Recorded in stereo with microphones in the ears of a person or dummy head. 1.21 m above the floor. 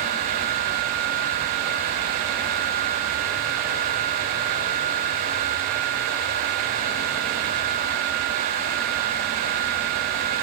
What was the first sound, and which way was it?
Only background noise.